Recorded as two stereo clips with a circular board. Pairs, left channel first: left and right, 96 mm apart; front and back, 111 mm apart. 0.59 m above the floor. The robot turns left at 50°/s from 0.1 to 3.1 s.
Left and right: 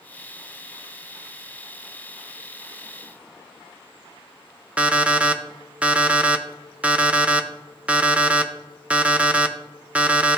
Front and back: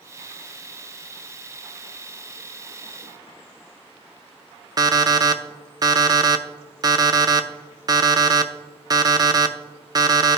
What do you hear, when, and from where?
4.8 s an alarm clock: 160° right, 0.5 m